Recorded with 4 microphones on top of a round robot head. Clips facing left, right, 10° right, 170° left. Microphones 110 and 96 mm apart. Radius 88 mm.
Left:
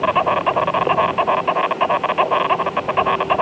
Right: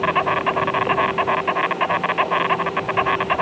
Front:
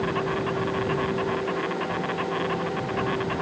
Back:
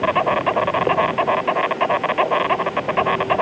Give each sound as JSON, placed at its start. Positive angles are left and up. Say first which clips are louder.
{"t": 0.0, "sound": "an insect", "louder": "left 3 dB, back 8 dB", "azimuth_deg": 150}